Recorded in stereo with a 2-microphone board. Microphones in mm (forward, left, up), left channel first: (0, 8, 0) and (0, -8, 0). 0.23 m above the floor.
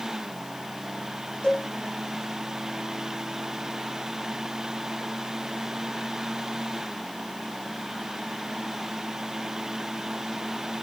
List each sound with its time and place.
1.4 s a cowbell: 85° left, 7 m